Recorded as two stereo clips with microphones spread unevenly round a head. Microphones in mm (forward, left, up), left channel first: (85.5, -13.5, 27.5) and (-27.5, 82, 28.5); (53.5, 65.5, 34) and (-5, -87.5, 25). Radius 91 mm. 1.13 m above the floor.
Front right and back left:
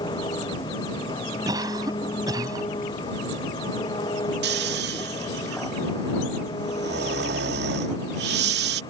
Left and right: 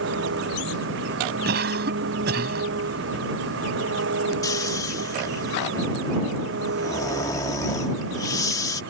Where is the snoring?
140° left.